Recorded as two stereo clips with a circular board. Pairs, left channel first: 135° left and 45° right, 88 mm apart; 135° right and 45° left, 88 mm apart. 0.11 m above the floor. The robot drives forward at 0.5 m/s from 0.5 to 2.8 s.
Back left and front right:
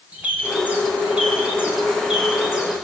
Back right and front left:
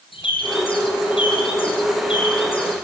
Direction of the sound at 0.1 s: 120° right.